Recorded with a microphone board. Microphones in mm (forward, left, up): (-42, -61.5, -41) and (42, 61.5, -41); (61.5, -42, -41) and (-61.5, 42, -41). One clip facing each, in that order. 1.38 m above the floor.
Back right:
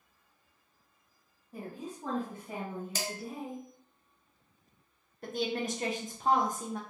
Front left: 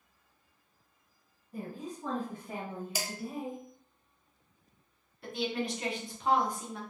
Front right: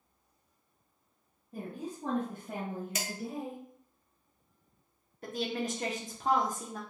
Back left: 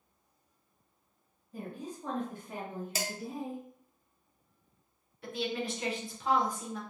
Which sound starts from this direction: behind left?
Dishes clattering, at 3.0 s.